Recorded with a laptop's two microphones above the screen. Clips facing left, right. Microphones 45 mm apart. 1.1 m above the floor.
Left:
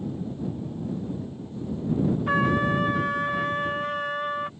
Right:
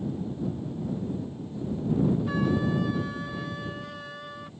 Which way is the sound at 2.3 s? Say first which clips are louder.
Left 4 dB; 55° left (ahead or behind).